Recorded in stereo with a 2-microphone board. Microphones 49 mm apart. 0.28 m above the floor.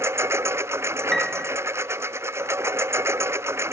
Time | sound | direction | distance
0.0 | a lawn mower | 70° right (ahead or behind) | ?
1.1 | a piano | 5° left (ahead or behind) | ?